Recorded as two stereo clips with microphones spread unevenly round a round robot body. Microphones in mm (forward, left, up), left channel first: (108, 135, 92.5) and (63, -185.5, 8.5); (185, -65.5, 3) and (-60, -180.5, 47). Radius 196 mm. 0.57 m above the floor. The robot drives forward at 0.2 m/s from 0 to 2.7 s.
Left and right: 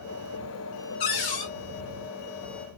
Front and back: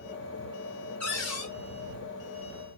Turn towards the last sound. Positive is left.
turn(degrees=125)